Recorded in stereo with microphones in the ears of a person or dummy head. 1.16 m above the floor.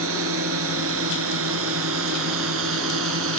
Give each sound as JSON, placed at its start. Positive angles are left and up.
{"t": 0.0, "sound": "a drone", "side_deg": -75}